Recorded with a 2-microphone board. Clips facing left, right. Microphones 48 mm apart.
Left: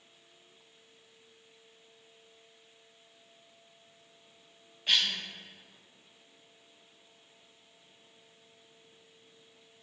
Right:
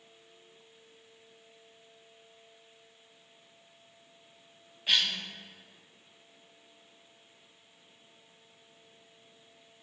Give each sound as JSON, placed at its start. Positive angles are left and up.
{"t": 4.9, "sound": "a cough", "side_deg": -5, "distance_m": 1.8}